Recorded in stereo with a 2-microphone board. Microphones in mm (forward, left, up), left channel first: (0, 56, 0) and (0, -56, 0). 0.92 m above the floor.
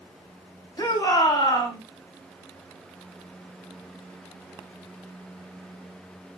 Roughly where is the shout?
Left.